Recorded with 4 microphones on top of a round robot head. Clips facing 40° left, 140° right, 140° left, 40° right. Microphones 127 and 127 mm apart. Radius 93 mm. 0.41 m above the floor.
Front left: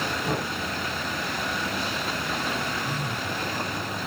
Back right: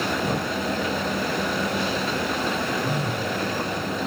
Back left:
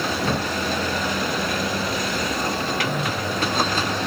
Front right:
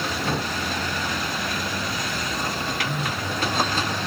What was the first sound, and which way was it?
Knocking, 160° left.